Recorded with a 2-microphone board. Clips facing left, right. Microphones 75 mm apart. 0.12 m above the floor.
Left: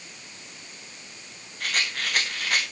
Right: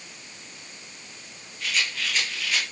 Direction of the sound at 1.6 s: 50° left (ahead or behind).